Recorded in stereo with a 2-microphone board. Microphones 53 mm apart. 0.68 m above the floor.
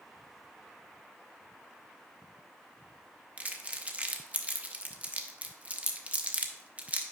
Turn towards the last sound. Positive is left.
turn(degrees=-30)  # may be behind; listen again after turning